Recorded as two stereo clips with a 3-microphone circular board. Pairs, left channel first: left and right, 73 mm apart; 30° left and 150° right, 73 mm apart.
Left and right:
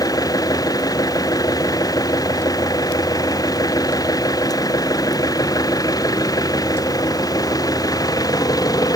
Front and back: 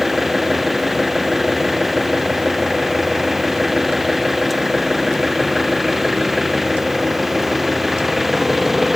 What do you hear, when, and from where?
0.0 s an engine running: 120° left